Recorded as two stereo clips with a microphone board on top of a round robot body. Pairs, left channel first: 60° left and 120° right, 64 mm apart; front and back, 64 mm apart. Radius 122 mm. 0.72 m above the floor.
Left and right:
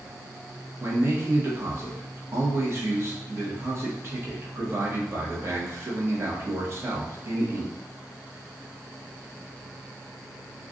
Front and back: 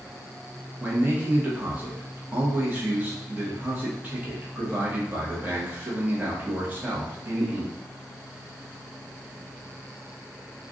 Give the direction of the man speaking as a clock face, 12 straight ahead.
4 o'clock.